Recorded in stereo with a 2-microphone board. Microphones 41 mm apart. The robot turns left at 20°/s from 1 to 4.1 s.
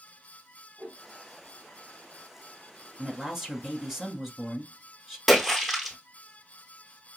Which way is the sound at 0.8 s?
35° right (ahead or behind).